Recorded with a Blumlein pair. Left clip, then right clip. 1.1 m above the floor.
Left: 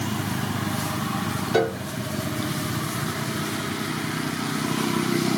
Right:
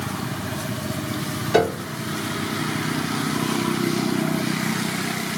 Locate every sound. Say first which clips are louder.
1.5 s a piano: right 4 dB; 20° right, 0.6 m